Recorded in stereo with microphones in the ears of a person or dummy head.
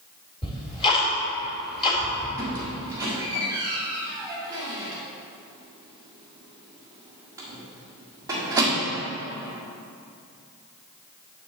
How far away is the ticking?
About 2.5 m.